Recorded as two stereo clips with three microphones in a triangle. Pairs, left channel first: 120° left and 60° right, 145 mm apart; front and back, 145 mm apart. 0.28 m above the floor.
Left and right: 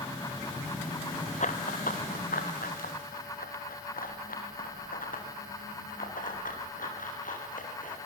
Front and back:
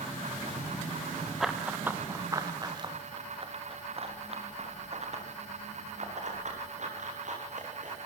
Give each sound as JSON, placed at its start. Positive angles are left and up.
{"t": 1.4, "sound": "running footsteps", "azimuth_deg": 90, "distance_m": 1.9}